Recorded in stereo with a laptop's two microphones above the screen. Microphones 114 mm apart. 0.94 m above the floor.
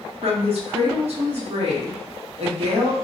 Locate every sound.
0.2 s a woman speaking: 65° right (ahead or behind), 1.0 m